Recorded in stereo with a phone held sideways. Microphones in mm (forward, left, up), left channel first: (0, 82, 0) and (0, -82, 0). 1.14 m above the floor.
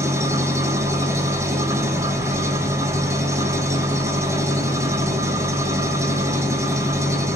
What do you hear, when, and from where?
0.0 s an engine running: 15° right (ahead or behind), 2.5 m